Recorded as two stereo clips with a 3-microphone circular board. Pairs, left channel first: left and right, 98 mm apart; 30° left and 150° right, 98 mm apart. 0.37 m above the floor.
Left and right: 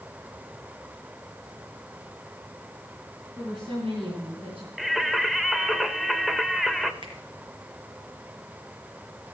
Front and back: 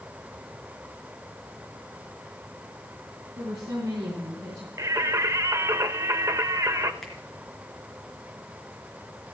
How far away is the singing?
About 0.7 m.